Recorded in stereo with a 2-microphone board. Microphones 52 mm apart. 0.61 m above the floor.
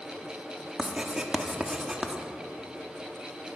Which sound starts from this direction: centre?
Writing, at 0.8 s.